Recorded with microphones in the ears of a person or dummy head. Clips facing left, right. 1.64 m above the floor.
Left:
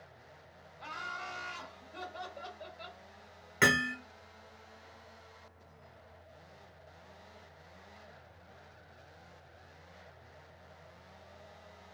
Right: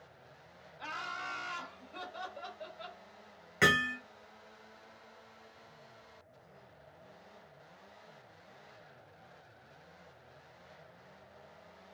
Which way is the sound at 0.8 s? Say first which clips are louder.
Right 1 dB; 75° right (ahead or behind).